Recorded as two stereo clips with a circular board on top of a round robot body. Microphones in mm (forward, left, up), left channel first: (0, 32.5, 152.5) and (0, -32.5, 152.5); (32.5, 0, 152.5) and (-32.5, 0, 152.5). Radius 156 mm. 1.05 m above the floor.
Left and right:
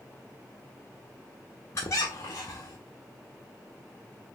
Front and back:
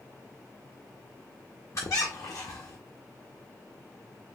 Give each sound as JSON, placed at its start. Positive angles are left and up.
{"t": 1.8, "sound": "a squeak", "azimuth_deg": 40, "distance_m": 0.7}